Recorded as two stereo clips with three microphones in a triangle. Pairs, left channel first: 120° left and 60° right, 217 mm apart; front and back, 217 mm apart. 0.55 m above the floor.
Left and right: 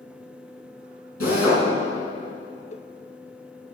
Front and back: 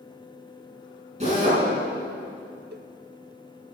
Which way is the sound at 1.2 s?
120° left.